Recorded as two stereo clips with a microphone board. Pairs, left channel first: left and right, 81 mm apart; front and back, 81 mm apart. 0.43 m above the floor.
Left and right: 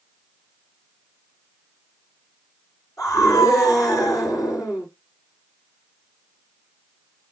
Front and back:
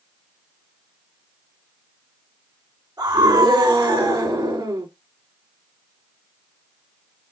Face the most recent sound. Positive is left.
turn(degrees=135)